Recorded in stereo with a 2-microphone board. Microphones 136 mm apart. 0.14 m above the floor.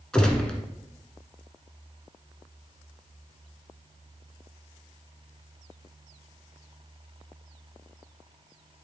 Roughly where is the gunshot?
Centre.